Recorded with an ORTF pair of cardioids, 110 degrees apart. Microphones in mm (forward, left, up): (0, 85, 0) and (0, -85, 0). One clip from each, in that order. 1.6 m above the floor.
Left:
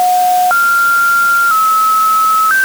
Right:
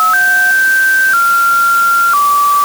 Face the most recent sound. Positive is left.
No sound to turn to.